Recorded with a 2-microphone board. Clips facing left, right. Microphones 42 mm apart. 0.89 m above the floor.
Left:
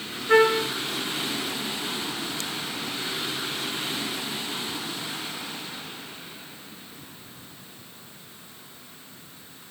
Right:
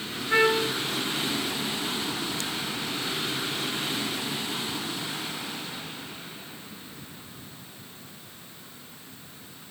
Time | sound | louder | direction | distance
0.3 | a trumpet | left 3 dB | 80° left | 3.5 m